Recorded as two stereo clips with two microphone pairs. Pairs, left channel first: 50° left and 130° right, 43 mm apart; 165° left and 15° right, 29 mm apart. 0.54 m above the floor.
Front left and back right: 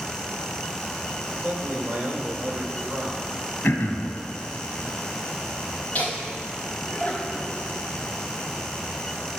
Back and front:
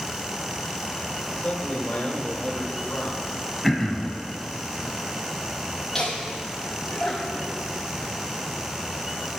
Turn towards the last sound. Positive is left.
turn(degrees=90)